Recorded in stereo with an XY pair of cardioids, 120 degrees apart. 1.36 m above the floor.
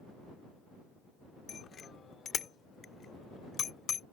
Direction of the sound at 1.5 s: 40° left.